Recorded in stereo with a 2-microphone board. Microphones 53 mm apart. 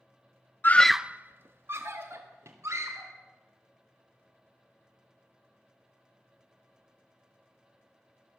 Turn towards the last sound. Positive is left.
turn(degrees=-60)  # may be behind; listen again after turning